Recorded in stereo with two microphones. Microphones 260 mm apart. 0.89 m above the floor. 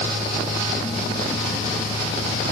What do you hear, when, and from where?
Only background noise.